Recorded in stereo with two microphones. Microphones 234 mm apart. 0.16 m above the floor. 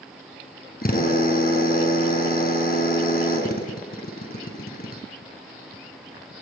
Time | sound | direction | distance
0.8 | a drill | 40° left (ahead or behind) | 1.9 m